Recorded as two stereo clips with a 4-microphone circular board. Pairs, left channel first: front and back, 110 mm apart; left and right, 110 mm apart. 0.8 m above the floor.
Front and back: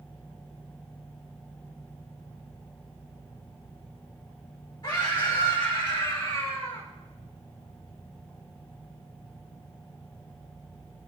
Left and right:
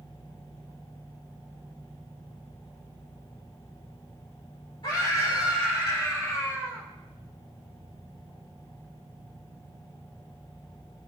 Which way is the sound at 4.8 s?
45° left.